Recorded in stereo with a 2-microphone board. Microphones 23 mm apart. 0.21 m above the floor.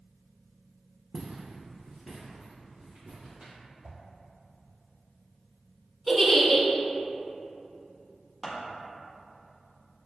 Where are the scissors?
5° right (ahead or behind), 1.2 m.